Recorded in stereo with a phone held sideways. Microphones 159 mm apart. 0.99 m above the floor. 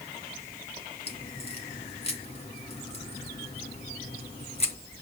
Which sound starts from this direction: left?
A crack, at 1.1 s.